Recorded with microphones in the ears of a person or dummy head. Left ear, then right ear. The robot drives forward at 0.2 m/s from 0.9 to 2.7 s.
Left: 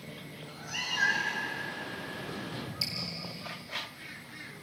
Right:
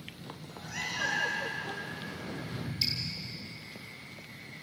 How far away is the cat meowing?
About 6.5 m.